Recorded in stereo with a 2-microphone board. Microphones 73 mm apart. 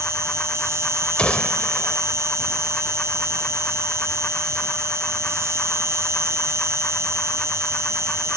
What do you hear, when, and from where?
0.0 s an insect: 40° right (ahead or behind)
1.2 s a gunshot: 15° left (ahead or behind)